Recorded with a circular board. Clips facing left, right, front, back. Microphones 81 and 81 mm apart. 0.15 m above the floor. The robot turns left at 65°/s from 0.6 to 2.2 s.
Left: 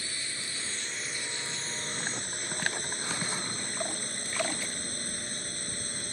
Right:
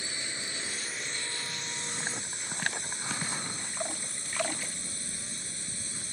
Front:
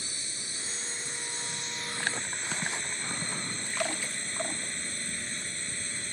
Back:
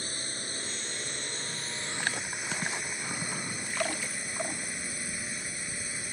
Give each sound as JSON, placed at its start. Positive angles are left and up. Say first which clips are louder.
{"t": 0.0, "sound": "a drone", "louder": "right 1 dB, back 4 dB", "azimuth_deg": -155}